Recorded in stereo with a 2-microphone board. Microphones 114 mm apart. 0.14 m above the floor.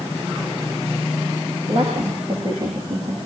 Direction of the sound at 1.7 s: 50° right (ahead or behind).